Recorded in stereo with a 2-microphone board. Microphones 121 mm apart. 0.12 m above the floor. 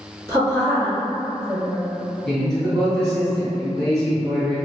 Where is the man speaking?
5° left (ahead or behind), 1.5 m.